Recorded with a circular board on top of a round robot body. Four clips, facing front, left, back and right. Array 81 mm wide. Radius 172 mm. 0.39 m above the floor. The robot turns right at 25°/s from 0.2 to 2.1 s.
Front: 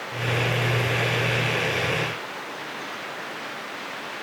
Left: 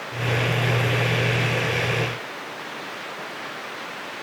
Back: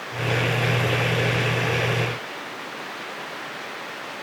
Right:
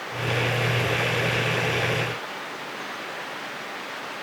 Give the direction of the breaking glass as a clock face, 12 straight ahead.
I don't hear breaking glass.